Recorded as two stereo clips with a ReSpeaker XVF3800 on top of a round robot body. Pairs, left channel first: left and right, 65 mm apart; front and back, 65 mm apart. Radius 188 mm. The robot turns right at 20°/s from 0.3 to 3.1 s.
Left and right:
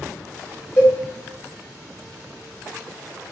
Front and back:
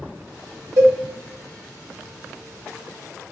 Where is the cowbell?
140° left, 1.9 m; by 0.9 s 145° left, 1.9 m.